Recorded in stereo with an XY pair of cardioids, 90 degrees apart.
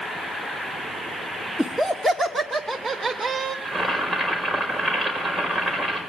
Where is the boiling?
5° right, 5 m.